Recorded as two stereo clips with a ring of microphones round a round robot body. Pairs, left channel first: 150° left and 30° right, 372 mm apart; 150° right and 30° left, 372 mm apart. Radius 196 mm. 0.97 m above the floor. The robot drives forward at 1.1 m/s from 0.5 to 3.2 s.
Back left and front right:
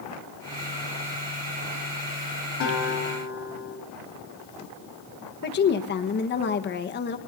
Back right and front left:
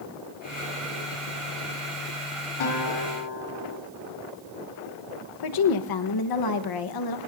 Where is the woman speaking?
150° right, 1.2 m.